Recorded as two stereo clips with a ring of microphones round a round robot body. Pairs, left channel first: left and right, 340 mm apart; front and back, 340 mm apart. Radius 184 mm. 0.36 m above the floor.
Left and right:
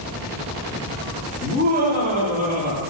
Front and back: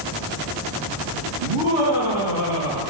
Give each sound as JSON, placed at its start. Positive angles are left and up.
{"t": 1.4, "sound": "laughter", "azimuth_deg": -160, "distance_m": 9.5}